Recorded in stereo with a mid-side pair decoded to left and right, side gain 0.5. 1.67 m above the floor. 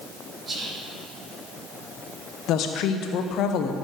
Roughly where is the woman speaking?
Ahead left.